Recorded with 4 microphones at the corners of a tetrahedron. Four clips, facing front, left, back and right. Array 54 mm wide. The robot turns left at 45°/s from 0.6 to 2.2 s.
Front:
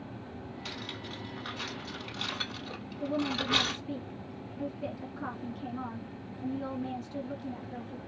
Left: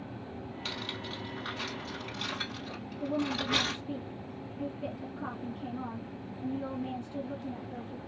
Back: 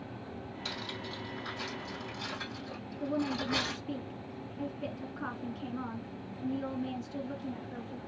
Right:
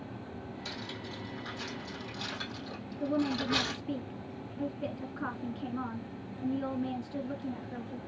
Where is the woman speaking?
100° right, 1.5 m.